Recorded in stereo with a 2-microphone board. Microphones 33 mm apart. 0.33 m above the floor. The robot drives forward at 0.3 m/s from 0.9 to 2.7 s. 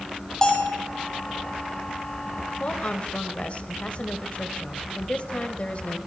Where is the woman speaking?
35° left (ahead or behind), 1.1 m.